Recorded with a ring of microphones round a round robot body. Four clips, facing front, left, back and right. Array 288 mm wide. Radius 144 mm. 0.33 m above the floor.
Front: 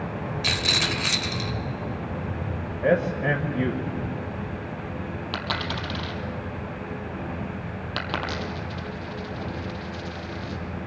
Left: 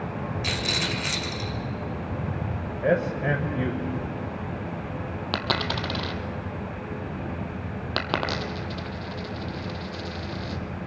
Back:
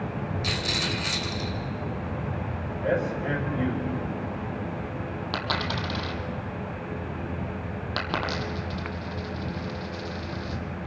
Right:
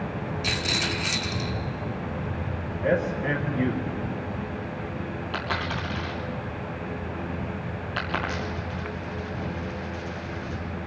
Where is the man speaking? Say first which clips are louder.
Left 1 dB, front 4 dB; 25° left, 1.8 m.